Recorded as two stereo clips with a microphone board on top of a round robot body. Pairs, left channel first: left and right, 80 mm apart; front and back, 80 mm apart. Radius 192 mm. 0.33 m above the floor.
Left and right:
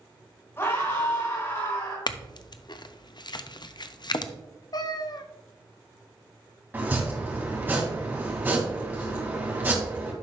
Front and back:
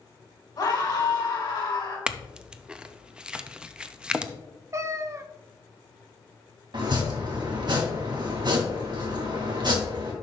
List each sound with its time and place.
0.6 s a scream: 35° left, 4.5 m
2.1 s a clink: 105° left, 0.7 m
4.7 s a cat meowing: 125° left, 0.7 m
6.7 s chopping: 155° right, 2 m